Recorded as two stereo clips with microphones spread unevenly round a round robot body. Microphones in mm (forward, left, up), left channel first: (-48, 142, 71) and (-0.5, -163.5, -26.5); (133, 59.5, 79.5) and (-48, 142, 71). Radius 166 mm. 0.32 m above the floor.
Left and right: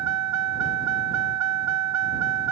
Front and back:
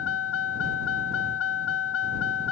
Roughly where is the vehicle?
Ahead right.